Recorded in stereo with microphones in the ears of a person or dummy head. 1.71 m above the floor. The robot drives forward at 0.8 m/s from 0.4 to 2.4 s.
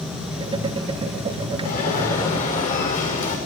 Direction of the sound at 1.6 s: 45° left (ahead or behind).